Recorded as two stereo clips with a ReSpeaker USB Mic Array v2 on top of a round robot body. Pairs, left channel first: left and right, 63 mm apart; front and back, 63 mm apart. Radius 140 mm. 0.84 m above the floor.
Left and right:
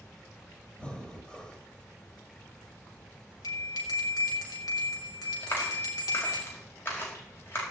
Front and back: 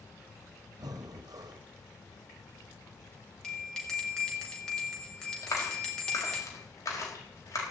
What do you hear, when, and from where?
0.8 s breathing: 165° left, 1.2 m
3.4 s a bell: 80° left, 4 m
5.4 s a clap: 40° left, 5 m